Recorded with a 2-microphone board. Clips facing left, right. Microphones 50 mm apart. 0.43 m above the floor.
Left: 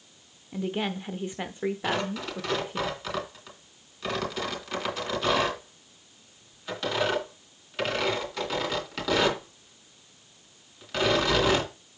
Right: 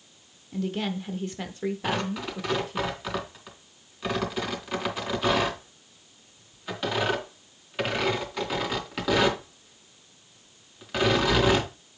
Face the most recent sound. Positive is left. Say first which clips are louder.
# even
turn(degrees=-10)  # may be behind; listen again after turning